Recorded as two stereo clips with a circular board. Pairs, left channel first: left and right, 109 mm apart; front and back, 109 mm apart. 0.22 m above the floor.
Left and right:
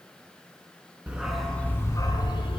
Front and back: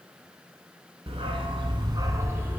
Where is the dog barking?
165° right, 1.1 m; by 2.6 s 110° left, 1.2 m.